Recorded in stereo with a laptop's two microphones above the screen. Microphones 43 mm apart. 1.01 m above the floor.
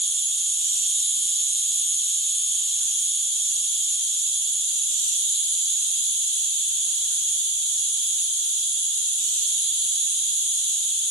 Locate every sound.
0.0 s an insect: 10° left (ahead or behind), 3.5 m